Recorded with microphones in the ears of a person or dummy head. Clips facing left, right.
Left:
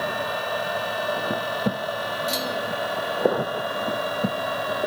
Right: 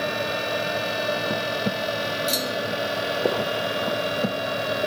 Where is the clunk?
15° right (ahead or behind).